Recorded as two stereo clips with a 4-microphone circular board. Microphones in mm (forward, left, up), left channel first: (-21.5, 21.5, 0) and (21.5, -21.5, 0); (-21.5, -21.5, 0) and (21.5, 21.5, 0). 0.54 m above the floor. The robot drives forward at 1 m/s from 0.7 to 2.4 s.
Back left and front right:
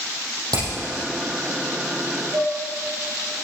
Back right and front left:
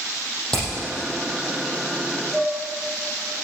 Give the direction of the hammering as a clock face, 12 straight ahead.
2 o'clock.